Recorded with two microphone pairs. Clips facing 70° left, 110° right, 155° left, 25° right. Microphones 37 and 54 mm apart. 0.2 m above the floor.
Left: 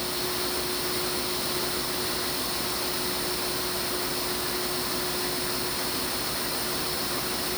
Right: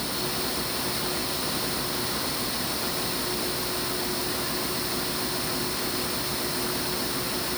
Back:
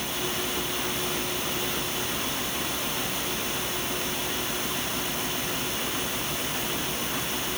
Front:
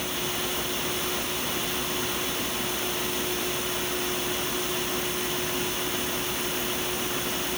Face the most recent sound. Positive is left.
No sound to turn to.